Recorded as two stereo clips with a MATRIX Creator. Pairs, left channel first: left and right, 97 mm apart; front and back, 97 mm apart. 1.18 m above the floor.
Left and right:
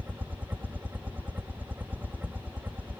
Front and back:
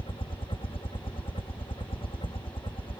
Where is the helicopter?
20° right.